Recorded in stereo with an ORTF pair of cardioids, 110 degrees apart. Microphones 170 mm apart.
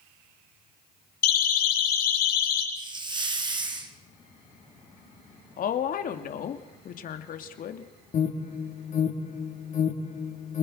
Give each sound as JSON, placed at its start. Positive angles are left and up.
{"t": 1.2, "sound": "a siren", "azimuth_deg": 60, "distance_m": 9.5}
{"t": 2.8, "sound": "a hiss", "azimuth_deg": -25, "distance_m": 3.0}
{"t": 5.6, "sound": "a woman speaking", "azimuth_deg": 55, "distance_m": 3.0}
{"t": 8.1, "sound": "an alarm", "azimuth_deg": 45, "distance_m": 4.5}